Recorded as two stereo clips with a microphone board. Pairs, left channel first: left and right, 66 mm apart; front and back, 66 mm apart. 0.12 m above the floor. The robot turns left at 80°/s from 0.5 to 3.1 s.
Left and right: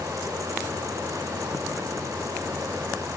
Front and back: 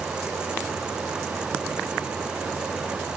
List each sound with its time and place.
Only background noise.